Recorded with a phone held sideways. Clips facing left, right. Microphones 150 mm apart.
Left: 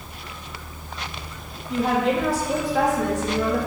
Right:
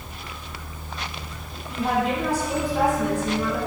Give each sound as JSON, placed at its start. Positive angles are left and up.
{"t": 1.7, "sound": "a woman speaking", "side_deg": 90, "distance_m": 1.8}